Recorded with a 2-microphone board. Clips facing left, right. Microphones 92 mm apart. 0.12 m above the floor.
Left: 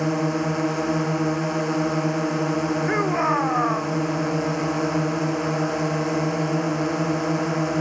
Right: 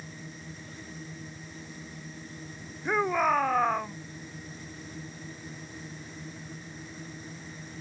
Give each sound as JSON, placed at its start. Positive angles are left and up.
{"t": 0.0, "sound": "a drone", "side_deg": 75}
{"t": 2.9, "sound": "a shout", "side_deg": 10}